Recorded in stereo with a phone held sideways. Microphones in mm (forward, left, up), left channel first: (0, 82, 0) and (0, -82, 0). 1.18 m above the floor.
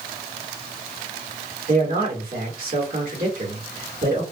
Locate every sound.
1.7 s a man speaking: 60° right (ahead or behind), 1.9 m